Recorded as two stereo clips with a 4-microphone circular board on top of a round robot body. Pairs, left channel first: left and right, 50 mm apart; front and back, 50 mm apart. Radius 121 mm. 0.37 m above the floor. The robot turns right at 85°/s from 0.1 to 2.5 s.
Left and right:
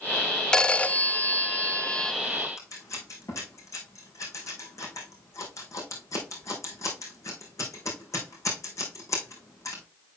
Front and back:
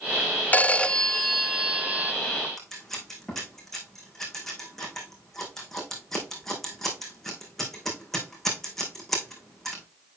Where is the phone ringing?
25° left, 0.9 m; by 2.1 s 160° left, 0.9 m.